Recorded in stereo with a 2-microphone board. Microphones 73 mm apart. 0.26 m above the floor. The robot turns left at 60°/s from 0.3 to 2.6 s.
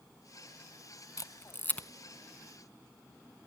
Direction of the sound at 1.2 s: 55° left (ahead or behind).